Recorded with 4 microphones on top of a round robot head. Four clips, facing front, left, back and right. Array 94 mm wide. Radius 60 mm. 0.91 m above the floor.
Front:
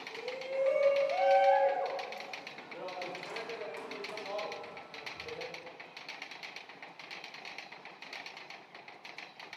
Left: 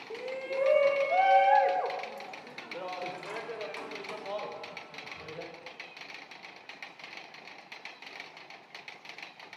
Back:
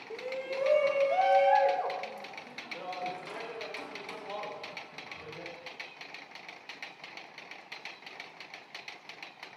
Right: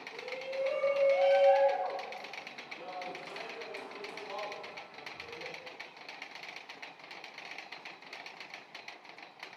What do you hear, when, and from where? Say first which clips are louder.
0.1 s a shout: left 5 dB, back 2 dB; 125° left, 1.6 m; by 5.5 s 75° left, 4.5 m